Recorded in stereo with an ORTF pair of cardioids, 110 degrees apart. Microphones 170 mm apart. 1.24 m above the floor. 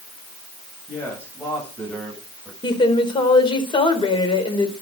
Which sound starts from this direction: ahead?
A man speaking, at 0.9 s.